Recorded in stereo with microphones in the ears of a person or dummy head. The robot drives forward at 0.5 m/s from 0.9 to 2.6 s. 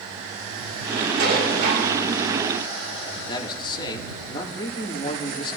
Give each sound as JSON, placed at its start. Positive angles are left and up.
{"t": 1.2, "sound": "dishes clattering", "side_deg": -65, "distance_m": 5.5}
{"t": 3.3, "sound": "a man speaking", "side_deg": 30, "distance_m": 3.0}